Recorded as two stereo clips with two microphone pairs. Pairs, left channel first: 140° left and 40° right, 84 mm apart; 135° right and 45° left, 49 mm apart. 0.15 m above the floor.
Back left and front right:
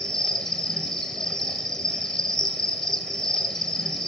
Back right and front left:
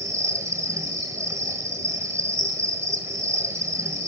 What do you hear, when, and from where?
0.0 s an insect: 50° left, 1.5 m